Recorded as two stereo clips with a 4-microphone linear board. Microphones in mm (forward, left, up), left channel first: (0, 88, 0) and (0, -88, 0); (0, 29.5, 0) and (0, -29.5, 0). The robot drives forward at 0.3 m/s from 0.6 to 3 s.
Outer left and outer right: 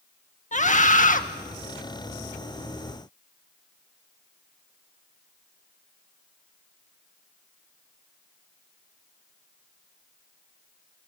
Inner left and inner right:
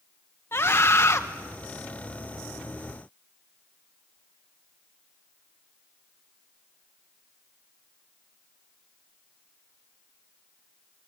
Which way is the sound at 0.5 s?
45° left (ahead or behind).